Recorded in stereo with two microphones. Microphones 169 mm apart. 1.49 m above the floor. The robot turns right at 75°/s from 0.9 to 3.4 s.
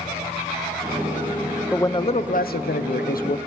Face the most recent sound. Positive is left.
turn(degrees=135)